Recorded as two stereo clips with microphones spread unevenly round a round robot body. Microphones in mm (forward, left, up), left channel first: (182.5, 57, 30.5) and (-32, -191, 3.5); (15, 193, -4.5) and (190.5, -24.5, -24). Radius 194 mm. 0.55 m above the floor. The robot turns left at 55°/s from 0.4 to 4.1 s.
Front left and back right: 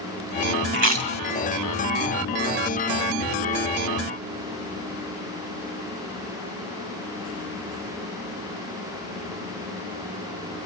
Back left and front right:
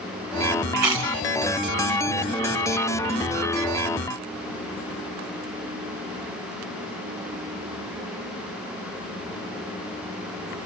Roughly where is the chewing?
Right.